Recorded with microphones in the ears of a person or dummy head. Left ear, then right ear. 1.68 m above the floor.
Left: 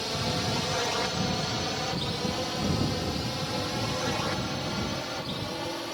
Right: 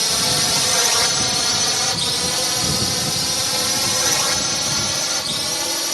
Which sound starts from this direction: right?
A drone, at 0.0 s.